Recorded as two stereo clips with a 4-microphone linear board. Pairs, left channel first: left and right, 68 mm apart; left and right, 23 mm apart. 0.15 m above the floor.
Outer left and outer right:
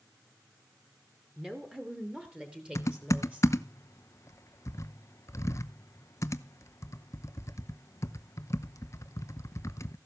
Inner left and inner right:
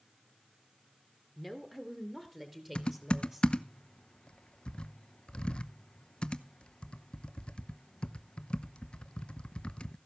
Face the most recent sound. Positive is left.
turn(degrees=45)  # may be behind; listen again after turning